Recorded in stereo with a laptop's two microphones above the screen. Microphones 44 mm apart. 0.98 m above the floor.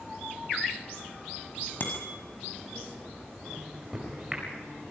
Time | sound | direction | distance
1.8 | a bicycle bell | 45° left (ahead or behind) | 4.5 m
3.5 | a microwave | 15° right (ahead or behind) | 4.5 m